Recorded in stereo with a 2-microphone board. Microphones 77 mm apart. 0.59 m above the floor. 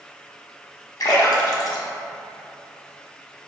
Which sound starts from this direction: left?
A splash, at 1.0 s.